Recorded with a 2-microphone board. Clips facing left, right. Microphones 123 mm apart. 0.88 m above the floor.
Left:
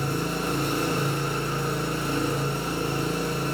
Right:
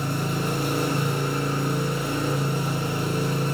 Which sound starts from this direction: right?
An engine running, at 0.0 s.